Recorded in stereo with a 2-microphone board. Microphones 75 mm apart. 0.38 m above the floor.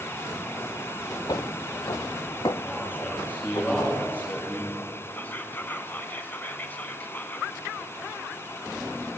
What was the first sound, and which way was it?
Footsteps, 55° left (ahead or behind).